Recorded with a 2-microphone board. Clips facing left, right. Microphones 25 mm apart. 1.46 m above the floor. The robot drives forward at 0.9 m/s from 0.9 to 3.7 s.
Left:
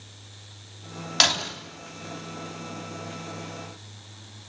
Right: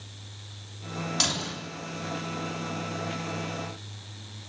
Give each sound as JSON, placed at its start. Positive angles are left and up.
{"t": 1.2, "sound": "breaking glass", "side_deg": 45, "distance_m": 3.0}